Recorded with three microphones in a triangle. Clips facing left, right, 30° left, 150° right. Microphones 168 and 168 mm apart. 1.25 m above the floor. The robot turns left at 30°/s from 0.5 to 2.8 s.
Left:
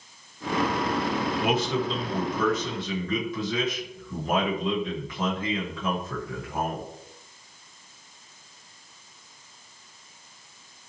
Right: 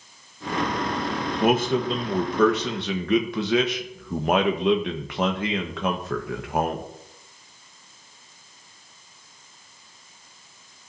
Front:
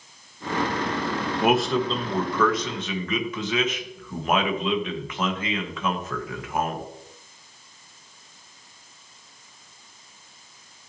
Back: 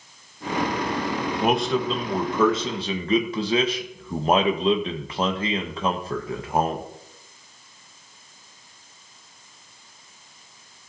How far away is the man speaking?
About 1.3 m.